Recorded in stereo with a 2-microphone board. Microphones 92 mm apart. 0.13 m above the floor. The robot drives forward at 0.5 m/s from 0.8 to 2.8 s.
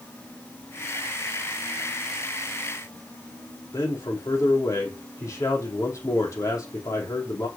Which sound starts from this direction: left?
A man speaking, at 3.7 s.